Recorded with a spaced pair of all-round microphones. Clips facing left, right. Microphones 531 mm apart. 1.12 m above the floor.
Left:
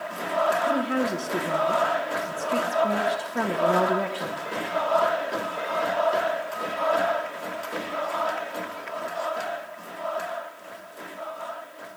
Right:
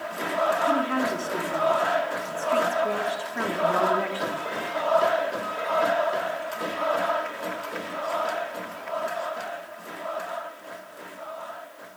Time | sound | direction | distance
0.7 | a woman speaking | 60° left (ahead or behind) | 1.1 m